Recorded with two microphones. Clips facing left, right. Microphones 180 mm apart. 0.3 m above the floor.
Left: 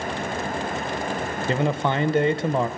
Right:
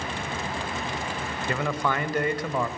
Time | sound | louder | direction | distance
1.5 | a man speaking | left 4 dB | 25° left (ahead or behind) | 1.1 m